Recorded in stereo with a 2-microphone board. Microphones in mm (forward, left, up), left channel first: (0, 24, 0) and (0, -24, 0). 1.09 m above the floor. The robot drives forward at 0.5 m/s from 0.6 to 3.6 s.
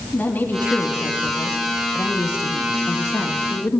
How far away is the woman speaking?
About 2 m.